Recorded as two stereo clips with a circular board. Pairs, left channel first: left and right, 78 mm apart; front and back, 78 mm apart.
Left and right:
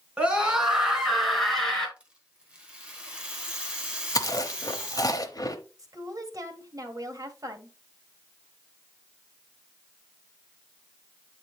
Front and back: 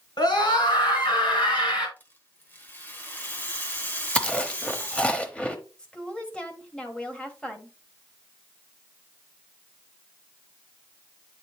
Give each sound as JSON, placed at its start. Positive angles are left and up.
{"t": 0.2, "sound": "a scream", "azimuth_deg": -15, "distance_m": 3.0}
{"t": 2.0, "sound": "a rattle", "azimuth_deg": -30, "distance_m": 1.4}
{"t": 4.2, "sound": "chewing", "azimuth_deg": 70, "distance_m": 0.9}
{"t": 5.8, "sound": "a woman speaking", "azimuth_deg": -75, "distance_m": 1.4}